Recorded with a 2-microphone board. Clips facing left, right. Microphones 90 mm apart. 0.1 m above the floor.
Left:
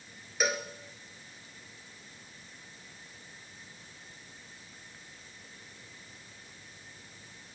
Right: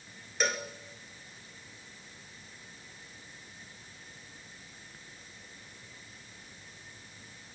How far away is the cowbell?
About 1.7 m.